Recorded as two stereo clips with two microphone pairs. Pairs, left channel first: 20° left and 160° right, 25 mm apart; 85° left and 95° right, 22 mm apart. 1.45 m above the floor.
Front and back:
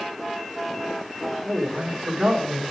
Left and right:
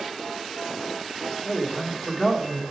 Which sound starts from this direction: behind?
A man speaking, at 1.4 s.